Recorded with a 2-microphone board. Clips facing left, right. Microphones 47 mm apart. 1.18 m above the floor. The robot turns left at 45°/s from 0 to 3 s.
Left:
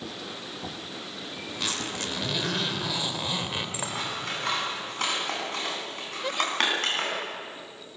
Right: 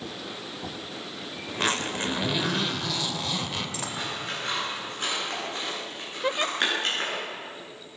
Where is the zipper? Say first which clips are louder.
Right 6 dB; 130° right, 2.5 m; by 4.0 s 160° left, 2.5 m.